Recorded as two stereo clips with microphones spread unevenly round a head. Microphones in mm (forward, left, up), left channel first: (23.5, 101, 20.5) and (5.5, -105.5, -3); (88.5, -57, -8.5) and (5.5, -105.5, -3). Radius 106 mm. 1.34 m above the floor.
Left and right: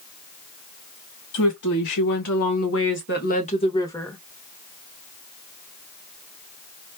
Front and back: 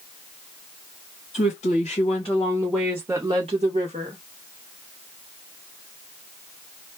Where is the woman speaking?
80° left, 1.4 m; by 4.2 s 170° left, 1.1 m.